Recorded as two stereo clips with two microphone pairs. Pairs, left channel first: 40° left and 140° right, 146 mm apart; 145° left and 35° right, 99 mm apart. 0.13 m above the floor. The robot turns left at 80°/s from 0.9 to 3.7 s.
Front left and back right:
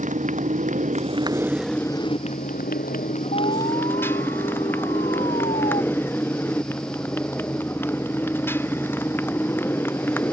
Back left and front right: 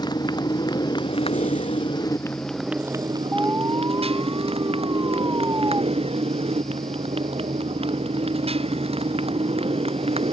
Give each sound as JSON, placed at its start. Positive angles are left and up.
{"t": 0.0, "sound": "a motorcycle", "azimuth_deg": -175}
{"t": 3.3, "sound": "an alarm", "azimuth_deg": 45}